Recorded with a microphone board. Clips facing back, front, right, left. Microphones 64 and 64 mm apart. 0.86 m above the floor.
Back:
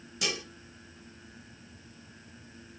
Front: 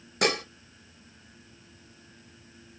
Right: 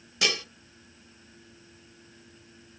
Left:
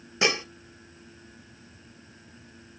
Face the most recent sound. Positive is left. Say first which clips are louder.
# front 9 dB, left 4 dB
turn(degrees=30)